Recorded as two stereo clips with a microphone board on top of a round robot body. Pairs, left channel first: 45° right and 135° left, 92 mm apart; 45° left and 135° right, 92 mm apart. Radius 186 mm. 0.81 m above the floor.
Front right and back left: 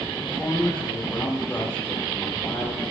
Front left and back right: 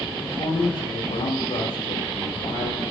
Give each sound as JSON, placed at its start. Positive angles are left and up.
{"t": 0.1, "sound": "a man speaking", "azimuth_deg": 35, "distance_m": 3.0}